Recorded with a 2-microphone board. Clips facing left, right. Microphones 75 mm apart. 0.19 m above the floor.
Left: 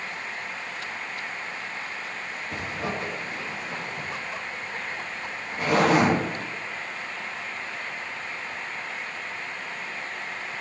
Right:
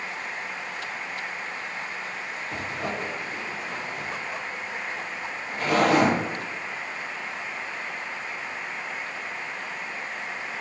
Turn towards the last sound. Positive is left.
turn(degrees=5)  # may be behind; listen again after turning